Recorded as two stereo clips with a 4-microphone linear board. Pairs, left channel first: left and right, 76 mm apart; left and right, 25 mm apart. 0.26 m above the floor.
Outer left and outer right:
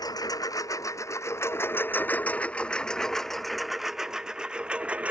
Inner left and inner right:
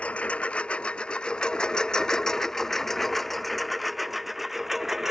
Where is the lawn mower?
55° left (ahead or behind); by 5.1 s 15° right (ahead or behind).